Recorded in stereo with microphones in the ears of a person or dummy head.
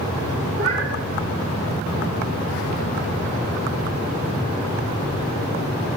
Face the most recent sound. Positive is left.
turn(degrees=-70)  # may be behind; listen again after turning